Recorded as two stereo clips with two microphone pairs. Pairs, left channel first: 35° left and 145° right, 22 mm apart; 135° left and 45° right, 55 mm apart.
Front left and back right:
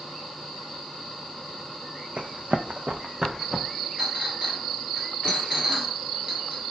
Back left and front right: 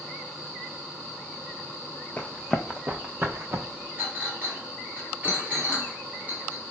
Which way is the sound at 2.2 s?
160° right.